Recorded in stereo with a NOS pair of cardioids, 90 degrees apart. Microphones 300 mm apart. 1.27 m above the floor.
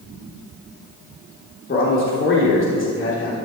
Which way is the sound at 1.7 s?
40° left.